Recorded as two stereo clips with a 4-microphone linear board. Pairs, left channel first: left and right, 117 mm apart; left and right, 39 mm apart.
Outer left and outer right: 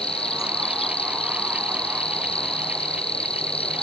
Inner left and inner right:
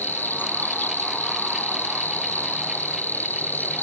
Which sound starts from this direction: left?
An insect, at 0.0 s.